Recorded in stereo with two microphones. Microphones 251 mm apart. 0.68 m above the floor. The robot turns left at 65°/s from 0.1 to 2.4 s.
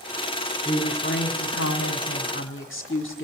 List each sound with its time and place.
0.7 s a woman speaking: 155° left, 1.5 m; by 3.2 s 45° left, 1.5 m